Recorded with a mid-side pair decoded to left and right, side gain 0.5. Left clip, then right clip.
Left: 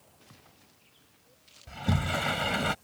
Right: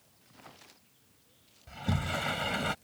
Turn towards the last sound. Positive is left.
turn(degrees=20)